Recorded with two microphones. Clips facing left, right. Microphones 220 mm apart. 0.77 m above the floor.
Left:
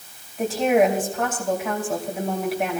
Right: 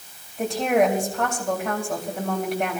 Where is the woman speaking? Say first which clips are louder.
Left 2 dB; 5° left (ahead or behind), 3.5 m.